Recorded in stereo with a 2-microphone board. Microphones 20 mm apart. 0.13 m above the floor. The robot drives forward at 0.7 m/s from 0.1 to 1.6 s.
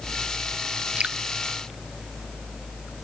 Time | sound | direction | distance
1.0 | dripping | 80° right | ?